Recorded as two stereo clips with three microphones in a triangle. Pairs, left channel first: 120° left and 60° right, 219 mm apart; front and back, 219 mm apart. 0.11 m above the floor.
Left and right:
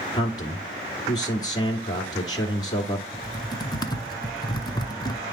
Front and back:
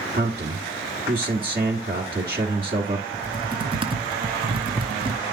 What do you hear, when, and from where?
0.1 s a man speaking: 175° right, 1.5 m
3.1 s typing on a keyboard: 160° left, 0.7 m